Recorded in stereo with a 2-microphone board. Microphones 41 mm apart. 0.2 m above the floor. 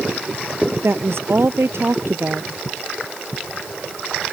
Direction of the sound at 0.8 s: 70° right (ahead or behind).